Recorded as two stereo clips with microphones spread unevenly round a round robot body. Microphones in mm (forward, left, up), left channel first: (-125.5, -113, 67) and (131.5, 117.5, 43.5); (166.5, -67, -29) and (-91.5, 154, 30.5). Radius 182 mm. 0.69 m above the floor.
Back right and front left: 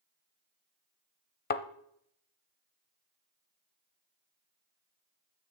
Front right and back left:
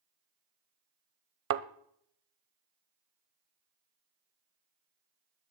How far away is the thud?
About 0.6 m.